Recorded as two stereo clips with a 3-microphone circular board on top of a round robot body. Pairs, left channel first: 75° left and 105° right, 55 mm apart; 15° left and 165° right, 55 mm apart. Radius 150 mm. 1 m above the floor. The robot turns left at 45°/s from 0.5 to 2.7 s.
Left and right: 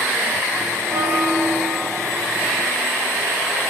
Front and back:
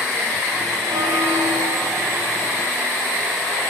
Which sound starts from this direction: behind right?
A bell, at 0.9 s.